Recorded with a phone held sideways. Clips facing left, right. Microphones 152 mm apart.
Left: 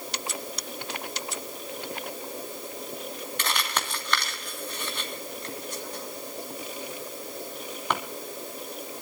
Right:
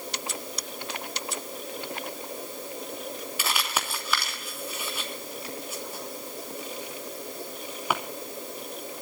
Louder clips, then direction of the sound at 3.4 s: Even; 5° right (ahead or behind).